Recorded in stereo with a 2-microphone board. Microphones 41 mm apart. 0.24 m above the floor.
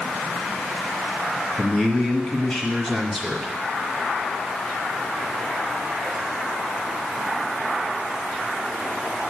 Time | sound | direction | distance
1.6 | a man speaking | 25° left (ahead or behind) | 1.7 m